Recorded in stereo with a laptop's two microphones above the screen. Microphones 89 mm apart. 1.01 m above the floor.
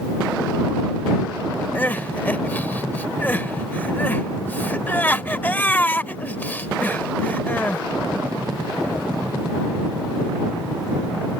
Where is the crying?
20° left (ahead or behind).